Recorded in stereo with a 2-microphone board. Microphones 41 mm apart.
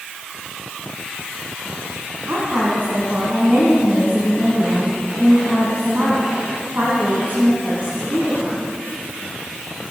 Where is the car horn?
No car horn in this recording.